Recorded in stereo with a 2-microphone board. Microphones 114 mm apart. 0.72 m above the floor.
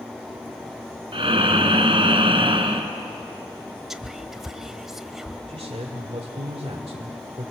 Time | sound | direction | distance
1.1 | breathing | 50° right (ahead or behind) | 1.8 m
3.9 | whispering | 5° right (ahead or behind) | 0.9 m
5.5 | a man speaking | 60° right (ahead or behind) | 1.9 m